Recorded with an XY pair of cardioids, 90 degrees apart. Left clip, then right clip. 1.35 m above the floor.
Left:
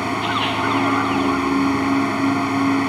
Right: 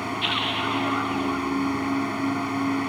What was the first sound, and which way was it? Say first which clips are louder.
A machine running: left 4 dB; 45° left.